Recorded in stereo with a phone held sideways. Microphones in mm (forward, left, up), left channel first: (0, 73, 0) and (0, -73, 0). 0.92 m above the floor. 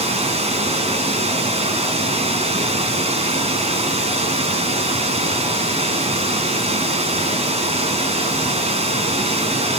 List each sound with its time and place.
0.0 s running water: 45° right (ahead or behind), 2 m